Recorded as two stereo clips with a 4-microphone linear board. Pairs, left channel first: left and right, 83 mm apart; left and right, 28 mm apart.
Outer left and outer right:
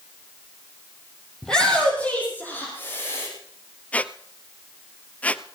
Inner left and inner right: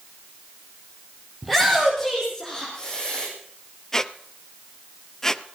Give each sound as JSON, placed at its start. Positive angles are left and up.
{"t": 1.4, "sound": "a shout", "side_deg": 5, "distance_m": 4.0}
{"t": 3.9, "sound": "a squeak", "side_deg": 20, "distance_m": 0.5}